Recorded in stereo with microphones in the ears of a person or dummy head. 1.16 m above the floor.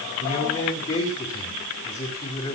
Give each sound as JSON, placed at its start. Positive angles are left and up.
{"t": 0.2, "sound": "a man speaking", "side_deg": 35, "distance_m": 6.0}